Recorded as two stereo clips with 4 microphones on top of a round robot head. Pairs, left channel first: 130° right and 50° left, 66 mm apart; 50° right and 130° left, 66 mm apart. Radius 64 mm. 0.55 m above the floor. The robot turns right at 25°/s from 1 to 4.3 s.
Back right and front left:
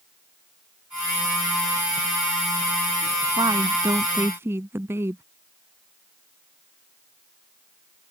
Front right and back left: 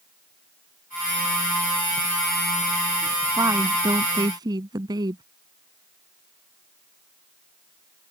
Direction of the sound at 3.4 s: 85° left.